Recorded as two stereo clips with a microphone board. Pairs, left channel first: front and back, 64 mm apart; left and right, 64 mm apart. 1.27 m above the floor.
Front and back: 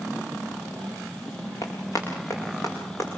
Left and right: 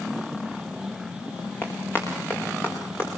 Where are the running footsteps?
35° left, 6 m; by 3.1 s 45° left, 7.5 m.